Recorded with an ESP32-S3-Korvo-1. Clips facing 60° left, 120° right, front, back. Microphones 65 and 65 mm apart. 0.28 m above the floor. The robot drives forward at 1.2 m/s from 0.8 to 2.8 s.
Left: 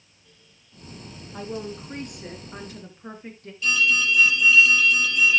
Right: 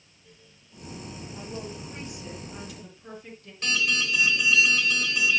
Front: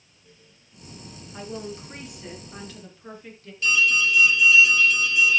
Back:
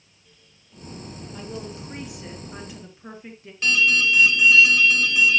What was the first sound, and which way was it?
A woman speaking, 75° left.